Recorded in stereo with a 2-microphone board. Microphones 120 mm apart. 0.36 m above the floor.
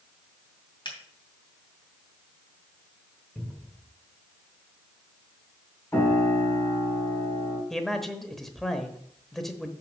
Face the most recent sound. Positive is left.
turn(degrees=0)  # may be behind; listen again after turning